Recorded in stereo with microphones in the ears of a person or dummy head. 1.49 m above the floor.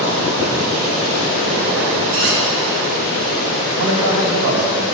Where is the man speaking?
85° right, 3 m.